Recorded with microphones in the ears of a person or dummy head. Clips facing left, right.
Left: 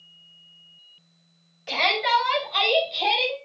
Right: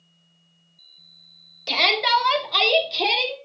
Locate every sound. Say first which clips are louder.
1.7 s a shout: right 1 dB; 55° right (ahead or behind), 2.5 m; by 3.4 s 75° right (ahead or behind), 3 m